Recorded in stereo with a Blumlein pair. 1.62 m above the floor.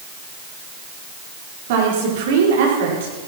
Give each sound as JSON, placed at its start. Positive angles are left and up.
{"t": 1.7, "sound": "a woman speaking", "azimuth_deg": -50, "distance_m": 5.0}